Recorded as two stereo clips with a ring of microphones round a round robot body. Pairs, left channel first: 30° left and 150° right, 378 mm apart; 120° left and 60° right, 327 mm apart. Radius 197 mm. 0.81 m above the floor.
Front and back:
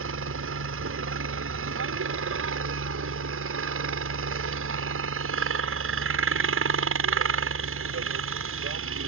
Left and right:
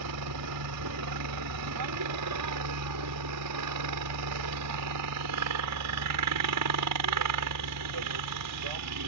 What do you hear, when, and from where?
0.0 s a helicopter: 95° right